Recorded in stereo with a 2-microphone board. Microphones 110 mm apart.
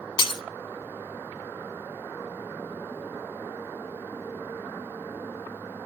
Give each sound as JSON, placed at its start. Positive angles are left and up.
{"t": 0.2, "sound": "breaking glass", "side_deg": 45, "distance_m": 0.8}